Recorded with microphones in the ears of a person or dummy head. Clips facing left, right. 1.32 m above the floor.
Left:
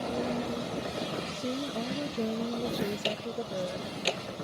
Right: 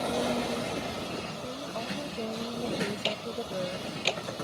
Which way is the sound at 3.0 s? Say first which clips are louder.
Even; 15° left (ahead or behind).